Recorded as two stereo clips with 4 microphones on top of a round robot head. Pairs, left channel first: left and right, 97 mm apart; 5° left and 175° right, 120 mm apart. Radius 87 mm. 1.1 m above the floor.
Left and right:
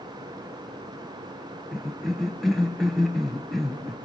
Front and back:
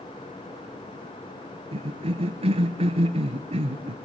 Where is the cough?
Straight behind, 1.0 m.